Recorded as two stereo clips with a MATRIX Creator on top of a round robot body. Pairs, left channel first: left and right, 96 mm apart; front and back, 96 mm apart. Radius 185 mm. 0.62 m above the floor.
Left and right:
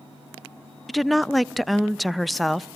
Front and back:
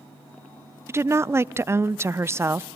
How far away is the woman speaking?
About 0.5 m.